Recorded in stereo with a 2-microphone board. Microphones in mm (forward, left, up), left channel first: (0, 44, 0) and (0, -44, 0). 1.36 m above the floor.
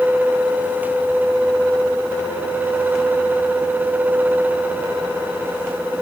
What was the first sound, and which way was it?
Only background noise.